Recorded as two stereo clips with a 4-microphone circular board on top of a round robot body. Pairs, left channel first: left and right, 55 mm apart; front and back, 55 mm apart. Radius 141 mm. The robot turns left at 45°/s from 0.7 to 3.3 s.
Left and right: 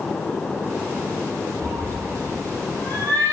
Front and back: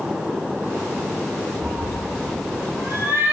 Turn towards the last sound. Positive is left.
turn(degrees=120)